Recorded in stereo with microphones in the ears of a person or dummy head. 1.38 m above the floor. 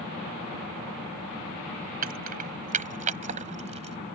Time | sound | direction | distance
2.0 | keys jangling | 50° right (ahead or behind) | ?